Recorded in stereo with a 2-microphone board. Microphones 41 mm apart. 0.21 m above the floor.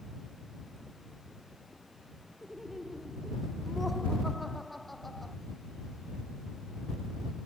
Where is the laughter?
5° right (ahead or behind); by 5.4 s 5° left (ahead or behind).